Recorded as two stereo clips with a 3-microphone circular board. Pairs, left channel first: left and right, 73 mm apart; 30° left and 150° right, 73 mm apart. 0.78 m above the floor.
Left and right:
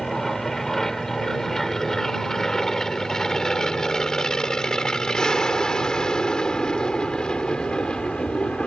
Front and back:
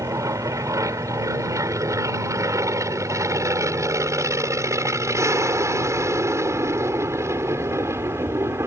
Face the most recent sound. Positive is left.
turn(degrees=165)